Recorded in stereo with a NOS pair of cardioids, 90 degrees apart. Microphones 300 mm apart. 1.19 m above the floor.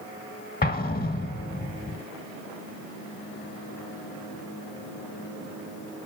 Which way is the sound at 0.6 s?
30° left.